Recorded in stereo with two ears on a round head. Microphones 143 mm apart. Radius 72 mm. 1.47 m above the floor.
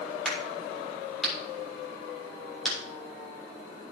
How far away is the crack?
About 5.5 m.